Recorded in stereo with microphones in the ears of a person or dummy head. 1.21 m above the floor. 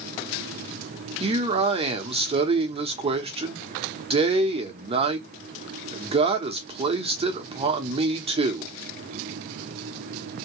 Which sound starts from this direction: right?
A man speaking, at 1.2 s.